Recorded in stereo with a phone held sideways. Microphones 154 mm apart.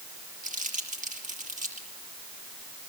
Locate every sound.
0.4 s crumpling: 55° right (ahead or behind), 6.5 m